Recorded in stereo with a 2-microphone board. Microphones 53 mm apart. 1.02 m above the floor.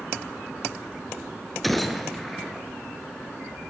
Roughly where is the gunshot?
Centre.